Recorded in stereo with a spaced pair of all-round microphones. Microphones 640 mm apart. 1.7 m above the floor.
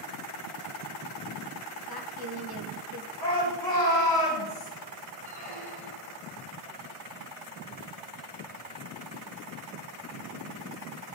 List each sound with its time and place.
1.9 s a woman speaking: 35° left (ahead or behind), 2 m
3.2 s a shout: 45° left (ahead or behind), 6 m
5.2 s a squeak: 40° right (ahead or behind), 2.5 m